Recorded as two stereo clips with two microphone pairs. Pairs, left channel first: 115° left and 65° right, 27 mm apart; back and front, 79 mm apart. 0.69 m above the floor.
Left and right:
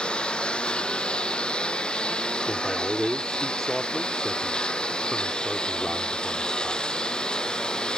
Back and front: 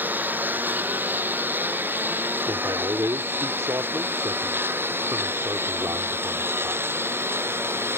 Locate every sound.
0.0 s a lawn mower: 65° left; by 8.0 s 60° left
2.5 s a man speaking: 30° left